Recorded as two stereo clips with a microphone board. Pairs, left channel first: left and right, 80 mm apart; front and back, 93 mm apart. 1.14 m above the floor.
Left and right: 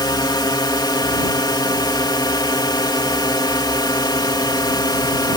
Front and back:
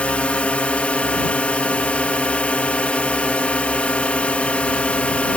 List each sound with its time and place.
0.0 s a drone: 75° left